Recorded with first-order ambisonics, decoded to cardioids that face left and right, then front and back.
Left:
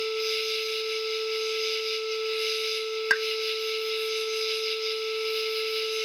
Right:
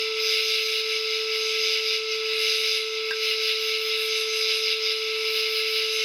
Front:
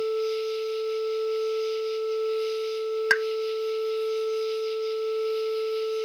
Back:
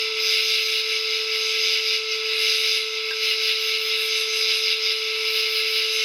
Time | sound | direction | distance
0.0 | an insect | 155° right | ?
3.1 | a pop | 35° left | ?